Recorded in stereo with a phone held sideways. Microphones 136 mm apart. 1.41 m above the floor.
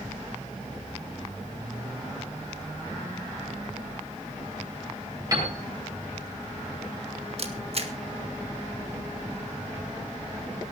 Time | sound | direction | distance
5.3 | a piano | 25° right (ahead or behind) | 7.5 m
7.4 | a camera shutter | 50° right (ahead or behind) | 1.7 m